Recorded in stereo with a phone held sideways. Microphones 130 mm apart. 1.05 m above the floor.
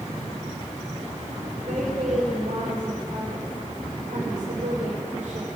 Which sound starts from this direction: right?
A woman speaking, at 1.7 s.